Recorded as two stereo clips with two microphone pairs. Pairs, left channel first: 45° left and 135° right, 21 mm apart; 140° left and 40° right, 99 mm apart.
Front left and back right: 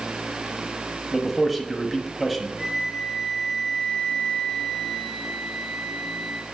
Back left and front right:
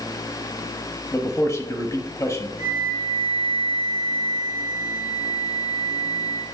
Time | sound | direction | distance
1.1 | a man speaking | 130° left | 1.0 m
2.6 | a flute | 130° left | 2 m